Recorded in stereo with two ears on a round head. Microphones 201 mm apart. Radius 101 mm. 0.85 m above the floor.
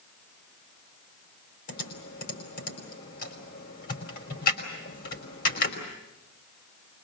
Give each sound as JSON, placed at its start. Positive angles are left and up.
{"t": 1.7, "sound": "typing on a keyboard", "side_deg": 40, "distance_m": 5.0}